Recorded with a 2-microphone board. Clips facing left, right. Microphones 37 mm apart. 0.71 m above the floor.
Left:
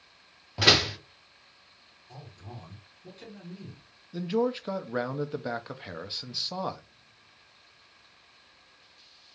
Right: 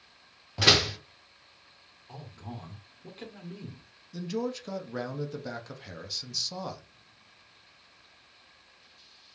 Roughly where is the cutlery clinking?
I don't hear cutlery clinking.